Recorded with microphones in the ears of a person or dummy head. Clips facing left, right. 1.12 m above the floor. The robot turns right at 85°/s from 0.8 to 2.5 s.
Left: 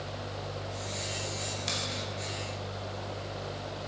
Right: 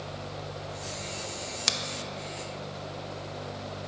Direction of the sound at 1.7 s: 75° right (ahead or behind).